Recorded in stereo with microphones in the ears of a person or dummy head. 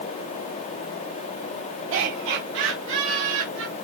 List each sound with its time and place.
1.9 s laughter: 70° right (ahead or behind), 5.5 m; by 3.7 s 75° right (ahead or behind), 3.5 m